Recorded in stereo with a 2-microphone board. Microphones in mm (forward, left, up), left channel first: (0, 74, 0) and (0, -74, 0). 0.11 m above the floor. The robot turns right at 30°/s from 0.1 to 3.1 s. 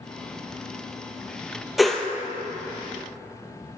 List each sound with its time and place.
1.8 s a whoosh: centre (ahead or behind), 0.8 m; by 2.1 s 5° left (ahead or behind), 0.8 m